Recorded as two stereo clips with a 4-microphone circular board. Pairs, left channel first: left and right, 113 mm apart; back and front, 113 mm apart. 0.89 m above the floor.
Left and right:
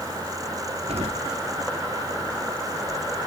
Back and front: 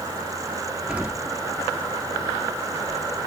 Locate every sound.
0.9 s an explosion: 80° right